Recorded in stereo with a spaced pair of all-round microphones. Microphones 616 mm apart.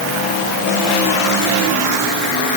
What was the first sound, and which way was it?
Only background noise.